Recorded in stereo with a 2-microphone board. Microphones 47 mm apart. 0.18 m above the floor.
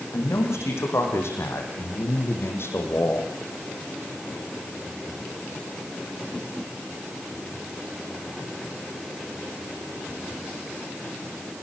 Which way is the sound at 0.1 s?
75° left (ahead or behind).